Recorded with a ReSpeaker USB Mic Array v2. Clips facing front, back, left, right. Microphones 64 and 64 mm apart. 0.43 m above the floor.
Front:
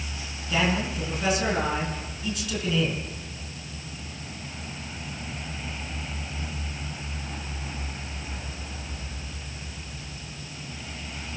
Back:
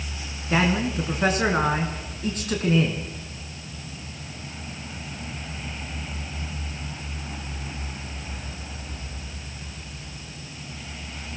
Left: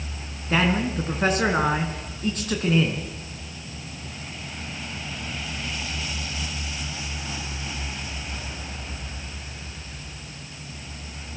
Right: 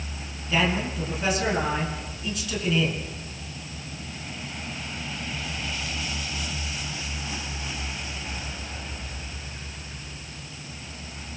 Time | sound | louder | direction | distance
0.5 | a man speaking | back 3 dB, left 2 dB | 135° left | 5 m